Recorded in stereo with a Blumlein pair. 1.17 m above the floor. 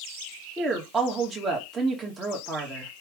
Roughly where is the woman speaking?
Ahead.